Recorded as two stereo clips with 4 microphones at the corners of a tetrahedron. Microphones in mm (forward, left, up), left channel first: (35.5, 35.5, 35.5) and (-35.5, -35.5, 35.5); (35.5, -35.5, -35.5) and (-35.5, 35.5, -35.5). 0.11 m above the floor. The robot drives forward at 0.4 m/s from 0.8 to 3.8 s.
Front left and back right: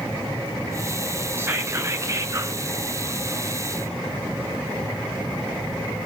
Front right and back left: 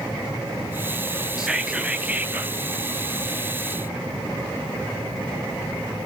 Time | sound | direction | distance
1.4 | whispering | 150° right | 1.1 m